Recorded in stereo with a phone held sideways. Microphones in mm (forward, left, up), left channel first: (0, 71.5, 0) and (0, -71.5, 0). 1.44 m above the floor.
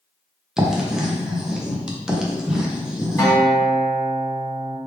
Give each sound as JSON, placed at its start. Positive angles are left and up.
{"t": 0.6, "sound": "writing", "side_deg": -5, "distance_m": 0.6}
{"t": 3.2, "sound": "a guitar", "side_deg": 20, "distance_m": 1.2}